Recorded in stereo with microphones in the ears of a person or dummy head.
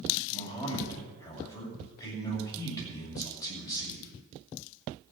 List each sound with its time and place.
0.3 s a man speaking: 15° left (ahead or behind), 7.5 m